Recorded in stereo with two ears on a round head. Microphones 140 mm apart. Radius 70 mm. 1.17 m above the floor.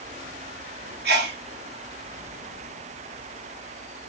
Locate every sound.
1.1 s a sneeze: 75° right (ahead or behind), 1.4 m